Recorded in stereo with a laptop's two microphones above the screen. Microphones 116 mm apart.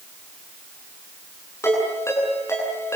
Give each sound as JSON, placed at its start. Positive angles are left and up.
{"t": 1.6, "sound": "a ringtone", "side_deg": 20, "distance_m": 8.5}